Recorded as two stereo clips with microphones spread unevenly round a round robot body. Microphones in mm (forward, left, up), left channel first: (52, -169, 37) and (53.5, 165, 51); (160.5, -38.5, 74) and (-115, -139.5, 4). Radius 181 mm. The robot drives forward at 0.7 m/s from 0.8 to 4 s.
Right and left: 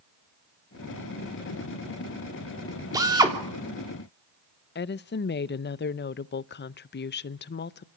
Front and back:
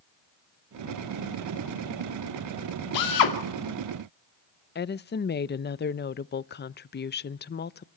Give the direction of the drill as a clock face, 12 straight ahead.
12 o'clock.